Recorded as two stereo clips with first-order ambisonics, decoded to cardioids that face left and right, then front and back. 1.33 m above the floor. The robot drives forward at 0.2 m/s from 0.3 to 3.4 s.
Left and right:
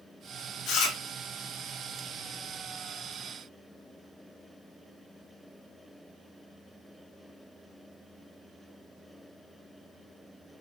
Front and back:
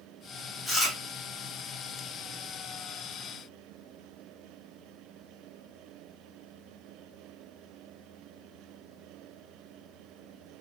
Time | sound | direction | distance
0.7 | chewing | 85° left | 1.4 m